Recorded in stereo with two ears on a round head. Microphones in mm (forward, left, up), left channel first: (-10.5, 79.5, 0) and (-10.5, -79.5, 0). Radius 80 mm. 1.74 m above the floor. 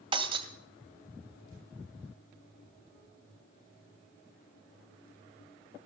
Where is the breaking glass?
30° right (ahead or behind), 1.8 m.